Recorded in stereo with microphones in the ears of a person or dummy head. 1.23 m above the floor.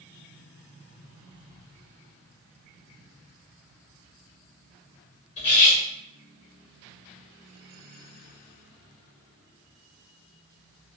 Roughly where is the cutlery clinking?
Left.